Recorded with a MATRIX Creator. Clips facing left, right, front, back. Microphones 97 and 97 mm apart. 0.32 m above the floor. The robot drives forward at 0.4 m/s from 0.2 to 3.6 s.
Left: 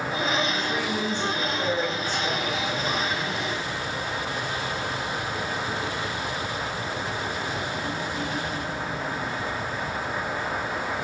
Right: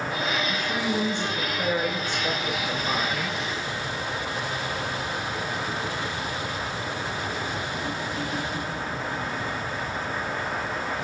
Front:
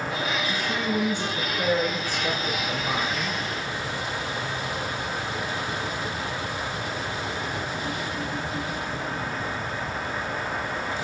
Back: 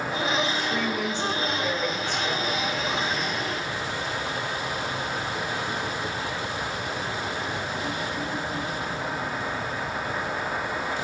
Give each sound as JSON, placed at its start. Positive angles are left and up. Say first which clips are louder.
{"t": 0.5, "sound": "a woman speaking", "louder": "even, even", "azimuth_deg": -20, "distance_m": 1.9}